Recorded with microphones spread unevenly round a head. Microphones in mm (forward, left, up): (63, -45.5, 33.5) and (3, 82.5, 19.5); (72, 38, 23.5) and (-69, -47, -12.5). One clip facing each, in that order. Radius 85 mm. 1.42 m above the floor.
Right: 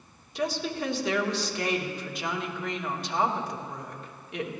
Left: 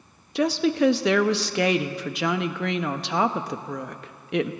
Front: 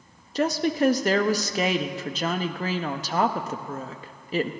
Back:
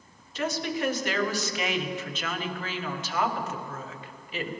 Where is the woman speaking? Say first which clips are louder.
Left 9 dB, front 7 dB; 85° left, 0.6 m.